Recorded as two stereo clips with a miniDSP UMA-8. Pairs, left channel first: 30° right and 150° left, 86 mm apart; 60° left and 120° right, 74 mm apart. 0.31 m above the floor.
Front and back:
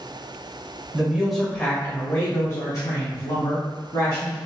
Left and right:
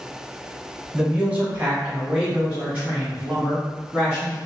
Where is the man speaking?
165° right, 0.9 m; by 4.4 s 45° right, 2.5 m.